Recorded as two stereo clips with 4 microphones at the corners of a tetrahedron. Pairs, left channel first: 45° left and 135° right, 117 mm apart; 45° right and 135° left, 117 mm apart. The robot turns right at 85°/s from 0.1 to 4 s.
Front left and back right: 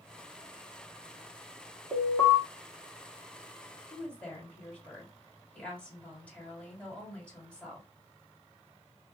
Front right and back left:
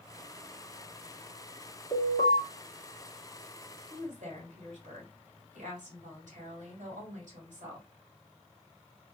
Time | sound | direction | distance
1.9 | an alarm | 60° right | 2 m
3.9 | a woman speaking | 115° left | 2.5 m